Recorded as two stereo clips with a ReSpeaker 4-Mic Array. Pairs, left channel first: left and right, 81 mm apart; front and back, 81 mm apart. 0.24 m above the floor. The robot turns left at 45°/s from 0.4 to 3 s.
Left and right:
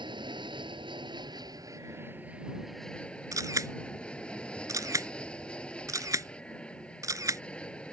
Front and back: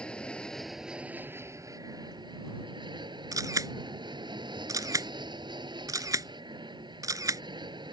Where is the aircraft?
75° right; by 7.9 s 165° left.